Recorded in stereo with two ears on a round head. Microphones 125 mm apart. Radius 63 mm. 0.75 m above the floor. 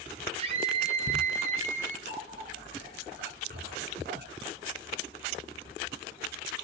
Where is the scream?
40° right (ahead or behind), 4.5 m; by 2.0 s 55° right (ahead or behind), 5 m.